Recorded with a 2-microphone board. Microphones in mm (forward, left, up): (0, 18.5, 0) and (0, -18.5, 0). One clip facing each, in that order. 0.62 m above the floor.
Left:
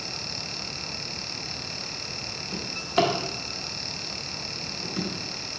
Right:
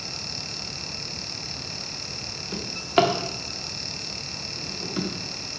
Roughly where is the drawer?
Right.